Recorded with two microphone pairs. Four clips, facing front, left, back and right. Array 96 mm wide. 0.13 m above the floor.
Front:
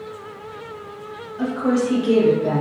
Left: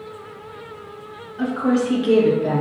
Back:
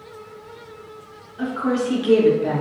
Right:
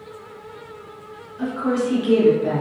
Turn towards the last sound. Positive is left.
turn(degrees=-170)